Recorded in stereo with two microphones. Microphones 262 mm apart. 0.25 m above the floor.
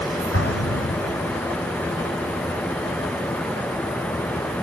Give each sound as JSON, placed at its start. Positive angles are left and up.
{"t": 0.3, "sound": "an explosion", "side_deg": 55}